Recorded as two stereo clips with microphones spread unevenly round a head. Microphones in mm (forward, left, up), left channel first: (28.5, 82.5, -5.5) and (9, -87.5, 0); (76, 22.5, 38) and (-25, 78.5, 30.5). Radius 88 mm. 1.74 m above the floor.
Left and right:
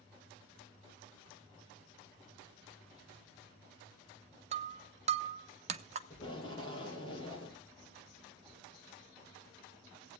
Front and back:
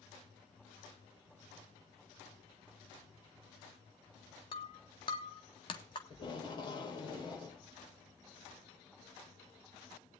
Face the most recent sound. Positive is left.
turn(degrees=20)